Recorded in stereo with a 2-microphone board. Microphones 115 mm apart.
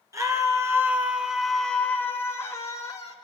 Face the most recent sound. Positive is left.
turn(degrees=40)  # may be behind; listen again after turning